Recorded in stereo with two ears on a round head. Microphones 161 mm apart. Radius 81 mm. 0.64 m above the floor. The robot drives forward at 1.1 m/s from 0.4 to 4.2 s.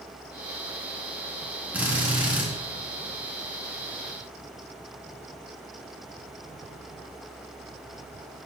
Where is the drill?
10° right (ahead or behind), 5 m; by 2.5 s 5° right (ahead or behind), 5.5 m.